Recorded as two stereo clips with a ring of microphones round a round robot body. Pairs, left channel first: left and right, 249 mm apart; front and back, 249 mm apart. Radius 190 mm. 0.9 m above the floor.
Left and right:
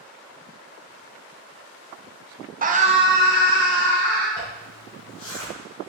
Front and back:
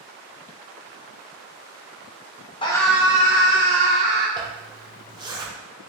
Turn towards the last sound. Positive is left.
turn(degrees=105)